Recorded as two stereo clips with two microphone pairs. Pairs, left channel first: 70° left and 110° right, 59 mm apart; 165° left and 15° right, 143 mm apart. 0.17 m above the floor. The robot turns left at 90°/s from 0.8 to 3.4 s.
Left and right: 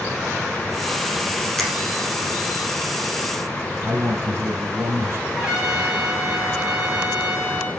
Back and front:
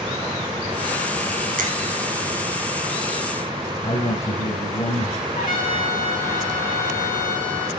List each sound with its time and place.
1.6 s a finger snap: 15° right, 4 m; by 1.7 s 30° right, 4 m
3.8 s a man speaking: 160° right, 5.5 m
5.3 s a trumpet: 170° left, 6.5 m